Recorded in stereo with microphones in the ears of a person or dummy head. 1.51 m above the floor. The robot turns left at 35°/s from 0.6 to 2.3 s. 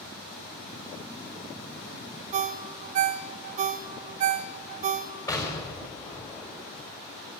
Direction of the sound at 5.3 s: 10° left (ahead or behind).